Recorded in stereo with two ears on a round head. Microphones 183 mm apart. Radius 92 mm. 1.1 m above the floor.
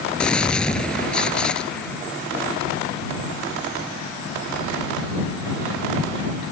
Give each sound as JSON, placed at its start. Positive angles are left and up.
{"t": 0.2, "sound": "a gunshot", "side_deg": 5}